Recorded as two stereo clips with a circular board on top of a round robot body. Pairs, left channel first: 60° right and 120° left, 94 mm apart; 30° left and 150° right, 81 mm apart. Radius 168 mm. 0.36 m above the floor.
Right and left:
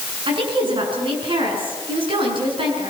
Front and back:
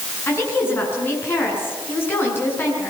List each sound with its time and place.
0.3 s a woman speaking: 95° left, 7.5 m